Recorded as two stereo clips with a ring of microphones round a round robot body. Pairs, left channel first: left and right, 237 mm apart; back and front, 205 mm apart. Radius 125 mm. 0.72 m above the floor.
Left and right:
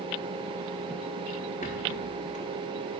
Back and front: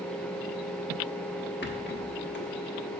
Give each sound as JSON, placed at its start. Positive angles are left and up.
{"t": 1.6, "sound": "a rattle", "azimuth_deg": 150, "distance_m": 1.1}